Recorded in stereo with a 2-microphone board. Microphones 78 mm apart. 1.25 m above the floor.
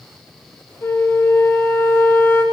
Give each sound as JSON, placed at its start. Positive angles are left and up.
{"t": 0.8, "sound": "a flute", "side_deg": 30, "distance_m": 0.9}